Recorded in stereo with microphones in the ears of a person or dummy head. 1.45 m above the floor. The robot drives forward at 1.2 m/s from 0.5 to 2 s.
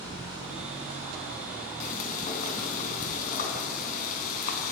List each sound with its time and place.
1.8 s frying: 50° left (ahead or behind), 4.5 m